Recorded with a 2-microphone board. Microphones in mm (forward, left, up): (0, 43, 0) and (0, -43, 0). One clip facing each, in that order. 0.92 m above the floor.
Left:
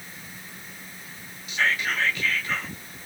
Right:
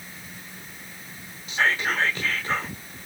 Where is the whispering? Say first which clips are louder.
Right 2 dB; 30° right (ahead or behind), 1.3 m.